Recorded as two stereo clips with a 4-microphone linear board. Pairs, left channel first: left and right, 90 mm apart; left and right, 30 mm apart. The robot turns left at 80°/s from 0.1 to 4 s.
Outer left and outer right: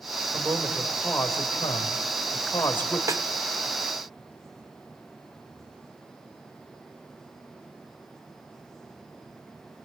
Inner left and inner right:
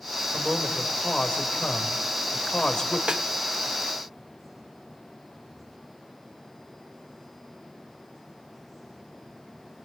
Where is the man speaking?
145° right, 4 m; by 3.0 s 5° left, 4 m.